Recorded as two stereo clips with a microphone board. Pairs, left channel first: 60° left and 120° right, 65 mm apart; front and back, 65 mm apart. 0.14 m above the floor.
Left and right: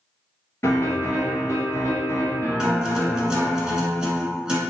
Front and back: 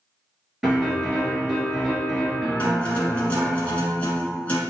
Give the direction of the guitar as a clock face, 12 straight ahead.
2 o'clock.